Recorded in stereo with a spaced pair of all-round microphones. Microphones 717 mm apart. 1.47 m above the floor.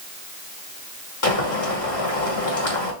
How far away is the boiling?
About 1.4 m.